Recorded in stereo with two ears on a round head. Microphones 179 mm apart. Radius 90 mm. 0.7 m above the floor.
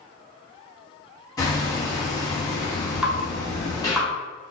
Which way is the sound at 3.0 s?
5° right (ahead or behind).